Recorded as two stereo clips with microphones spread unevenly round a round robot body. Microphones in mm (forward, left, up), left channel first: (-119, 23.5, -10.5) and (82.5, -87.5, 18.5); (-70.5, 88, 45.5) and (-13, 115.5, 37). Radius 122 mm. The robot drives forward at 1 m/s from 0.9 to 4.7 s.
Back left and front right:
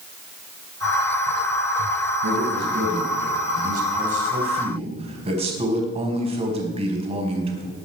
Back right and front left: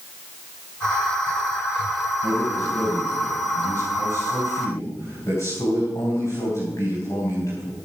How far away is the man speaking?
About 5 m.